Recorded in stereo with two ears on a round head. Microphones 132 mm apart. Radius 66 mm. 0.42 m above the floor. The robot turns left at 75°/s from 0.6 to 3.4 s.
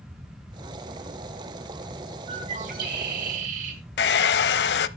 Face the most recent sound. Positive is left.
turn(degrees=75)  # may be behind; listen again after turning